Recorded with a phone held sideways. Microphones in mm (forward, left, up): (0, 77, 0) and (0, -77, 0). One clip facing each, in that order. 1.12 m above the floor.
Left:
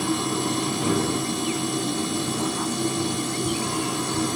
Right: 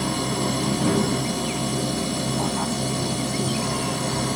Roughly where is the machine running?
Right.